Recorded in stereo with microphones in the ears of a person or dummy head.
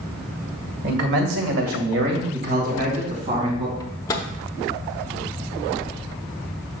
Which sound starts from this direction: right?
A man speaking, at 0.8 s.